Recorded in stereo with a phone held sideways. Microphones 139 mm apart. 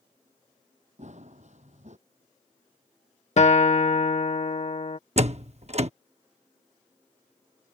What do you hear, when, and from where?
1.0 s running footsteps: 55° right (ahead or behind)
3.4 s a guitar: 55° left (ahead or behind)
5.2 s a door slam: 50° right (ahead or behind)